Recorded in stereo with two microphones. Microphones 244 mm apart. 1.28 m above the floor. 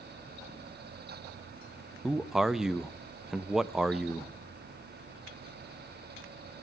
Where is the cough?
I don't hear a cough.